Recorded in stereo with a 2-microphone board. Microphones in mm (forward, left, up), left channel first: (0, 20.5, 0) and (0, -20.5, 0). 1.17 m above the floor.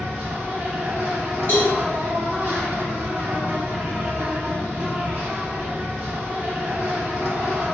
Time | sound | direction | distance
0.0 | an insect | 65° right (ahead or behind) | 1.9 m
1.5 | a cowbell | 60° left (ahead or behind) | 1.9 m